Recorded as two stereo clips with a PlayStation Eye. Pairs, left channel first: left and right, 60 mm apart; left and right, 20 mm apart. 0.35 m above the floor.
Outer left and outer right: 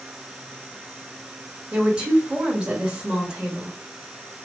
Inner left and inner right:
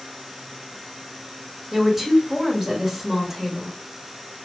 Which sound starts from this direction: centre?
A woman speaking, at 1.7 s.